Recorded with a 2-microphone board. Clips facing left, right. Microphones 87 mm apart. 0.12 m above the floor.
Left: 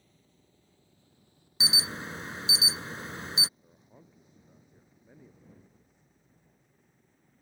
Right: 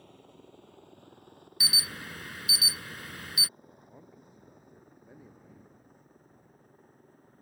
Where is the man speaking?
10° right (ahead or behind).